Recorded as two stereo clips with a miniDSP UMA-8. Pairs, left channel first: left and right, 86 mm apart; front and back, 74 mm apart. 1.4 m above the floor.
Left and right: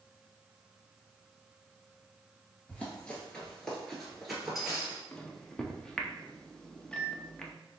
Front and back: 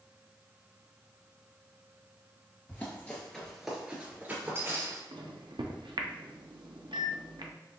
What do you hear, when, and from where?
2.7 s running footsteps: 35° left, 1.5 m; by 5.0 s 170° right, 1.7 m
5.1 s a microwave: 170° left, 0.5 m